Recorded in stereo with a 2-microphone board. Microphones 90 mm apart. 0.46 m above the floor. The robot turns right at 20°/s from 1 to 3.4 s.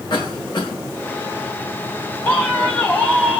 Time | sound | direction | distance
0.1 | a cough | 55° left (ahead or behind) | 2 m
2.2 | a man speaking | 25° left (ahead or behind) | 3 m